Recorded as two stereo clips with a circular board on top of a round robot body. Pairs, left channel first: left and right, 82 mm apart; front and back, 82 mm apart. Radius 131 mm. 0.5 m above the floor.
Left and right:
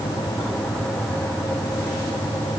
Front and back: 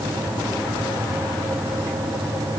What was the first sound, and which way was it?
Only background noise.